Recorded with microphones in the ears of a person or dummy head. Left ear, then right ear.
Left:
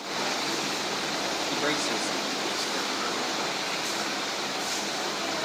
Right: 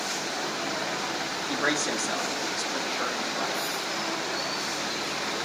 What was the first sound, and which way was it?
A man speaking, 45° right (ahead or behind).